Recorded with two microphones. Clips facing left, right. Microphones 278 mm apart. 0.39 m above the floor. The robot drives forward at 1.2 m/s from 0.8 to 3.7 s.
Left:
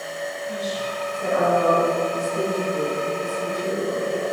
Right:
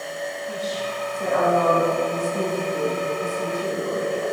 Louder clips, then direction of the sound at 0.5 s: Left 1 dB; 50° right (ahead or behind).